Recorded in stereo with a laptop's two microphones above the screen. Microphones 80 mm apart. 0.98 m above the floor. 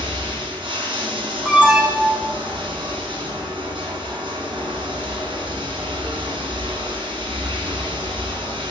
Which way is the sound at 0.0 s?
80° right.